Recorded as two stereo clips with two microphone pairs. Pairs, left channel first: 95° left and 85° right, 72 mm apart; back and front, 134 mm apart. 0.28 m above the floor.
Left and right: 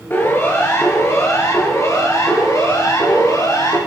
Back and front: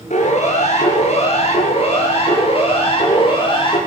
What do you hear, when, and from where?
0.1 s a siren: 155° left, 6 m; by 3.8 s 135° left, 8.5 m